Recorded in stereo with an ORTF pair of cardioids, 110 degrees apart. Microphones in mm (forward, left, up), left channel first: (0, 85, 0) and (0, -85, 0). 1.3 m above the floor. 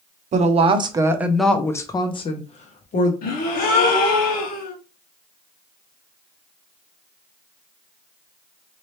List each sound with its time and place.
0.3 s a woman speaking: 45° right, 0.9 m; by 3.1 s 50° left, 1.3 m
3.2 s a gasp: 65° left, 1.3 m